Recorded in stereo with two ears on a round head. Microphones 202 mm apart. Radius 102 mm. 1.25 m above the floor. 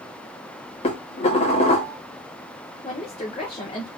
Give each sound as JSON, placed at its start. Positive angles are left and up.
{"t": 0.8, "sound": "dishes clattering", "side_deg": 25, "distance_m": 1.7}
{"t": 2.8, "sound": "a woman speaking", "side_deg": 25, "distance_m": 1.2}